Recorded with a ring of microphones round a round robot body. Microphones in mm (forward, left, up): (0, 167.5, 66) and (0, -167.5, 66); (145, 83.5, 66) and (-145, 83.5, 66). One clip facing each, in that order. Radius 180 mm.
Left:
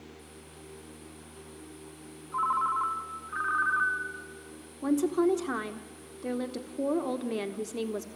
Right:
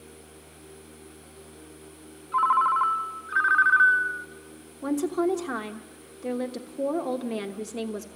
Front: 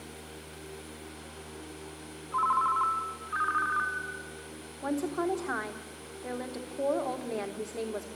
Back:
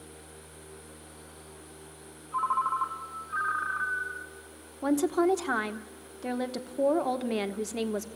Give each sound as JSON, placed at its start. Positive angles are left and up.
{"t": 2.3, "sound": "a ringtone", "azimuth_deg": -65, "distance_m": 1.0}
{"t": 4.8, "sound": "a woman speaking", "azimuth_deg": 180, "distance_m": 1.2}